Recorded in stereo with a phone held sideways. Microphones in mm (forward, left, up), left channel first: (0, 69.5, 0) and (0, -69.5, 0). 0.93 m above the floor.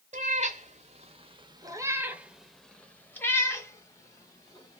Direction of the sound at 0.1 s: 55° right (ahead or behind).